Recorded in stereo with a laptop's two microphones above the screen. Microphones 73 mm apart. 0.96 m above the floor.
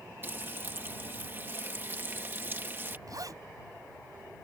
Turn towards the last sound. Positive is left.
turn(degrees=-55)  # may be behind; listen again after turning